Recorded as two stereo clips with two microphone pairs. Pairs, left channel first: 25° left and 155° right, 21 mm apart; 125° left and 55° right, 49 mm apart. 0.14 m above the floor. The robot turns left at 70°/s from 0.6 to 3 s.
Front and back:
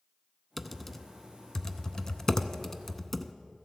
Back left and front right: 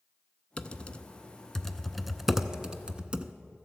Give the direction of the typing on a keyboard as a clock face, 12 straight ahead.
8 o'clock.